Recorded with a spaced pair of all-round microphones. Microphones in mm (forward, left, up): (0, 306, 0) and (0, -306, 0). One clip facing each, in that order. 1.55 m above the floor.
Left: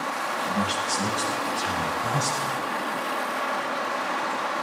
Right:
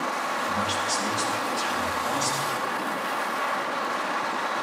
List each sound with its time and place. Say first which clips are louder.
0.4 s a man speaking: left 4 dB; 85° left, 9.5 m